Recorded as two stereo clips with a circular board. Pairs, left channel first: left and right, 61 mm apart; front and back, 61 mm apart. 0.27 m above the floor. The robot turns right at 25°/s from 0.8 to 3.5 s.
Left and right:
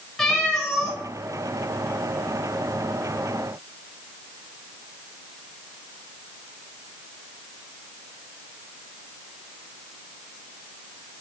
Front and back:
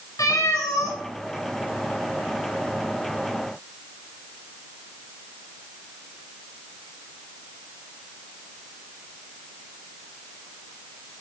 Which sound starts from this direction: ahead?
A cat meowing, at 0.2 s.